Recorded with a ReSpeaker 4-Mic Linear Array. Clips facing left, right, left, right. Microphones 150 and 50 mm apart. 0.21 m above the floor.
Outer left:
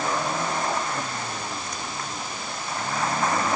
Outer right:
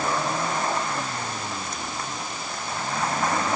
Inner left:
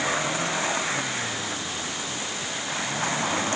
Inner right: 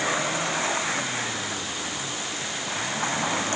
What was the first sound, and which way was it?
Only background noise.